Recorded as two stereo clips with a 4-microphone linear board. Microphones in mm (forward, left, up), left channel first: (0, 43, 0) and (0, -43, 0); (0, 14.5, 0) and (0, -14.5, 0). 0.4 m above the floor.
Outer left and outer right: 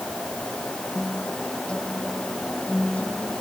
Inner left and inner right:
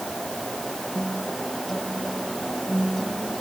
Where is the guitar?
10° left (ahead or behind).